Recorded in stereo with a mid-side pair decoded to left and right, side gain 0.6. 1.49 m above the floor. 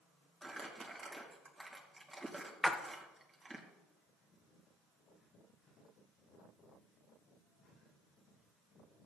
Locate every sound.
0.4 s crumpling: 15° right, 2.5 m
2.6 s a splash: 10° left, 1.2 m